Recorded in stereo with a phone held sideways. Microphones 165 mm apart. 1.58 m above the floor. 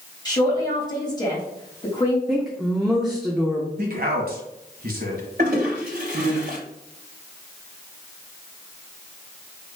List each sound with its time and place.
0.2 s a man speaking: 25° left (ahead or behind), 2 m
2.3 s a woman speaking: 5° right (ahead or behind), 0.9 m
3.8 s a man speaking: 60° right (ahead or behind), 1.5 m
5.4 s a toilet flushing: 65° right (ahead or behind), 2.5 m